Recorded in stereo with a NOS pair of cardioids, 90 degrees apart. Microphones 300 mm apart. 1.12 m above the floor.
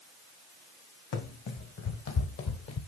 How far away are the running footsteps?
About 4 m.